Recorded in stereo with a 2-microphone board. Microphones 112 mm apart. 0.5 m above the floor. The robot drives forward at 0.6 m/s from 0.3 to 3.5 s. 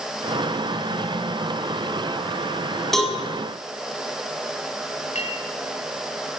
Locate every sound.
2.9 s a cowbell: centre (ahead or behind), 5 m
5.2 s a clink: 80° left, 5.5 m